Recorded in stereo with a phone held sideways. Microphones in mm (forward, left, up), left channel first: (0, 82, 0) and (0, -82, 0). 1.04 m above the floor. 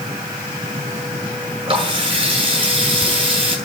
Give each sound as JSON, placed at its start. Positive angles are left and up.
{"t": 1.7, "sound": "a running tap", "side_deg": -30, "distance_m": 9.0}